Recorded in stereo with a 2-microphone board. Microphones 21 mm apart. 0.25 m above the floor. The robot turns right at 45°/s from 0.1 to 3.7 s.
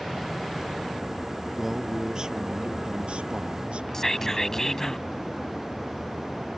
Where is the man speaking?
175° right; by 4.9 s 80° right.